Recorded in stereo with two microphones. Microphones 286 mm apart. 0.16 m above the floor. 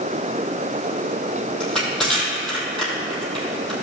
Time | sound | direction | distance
1.6 | crushing | centre (ahead or behind) | 3 m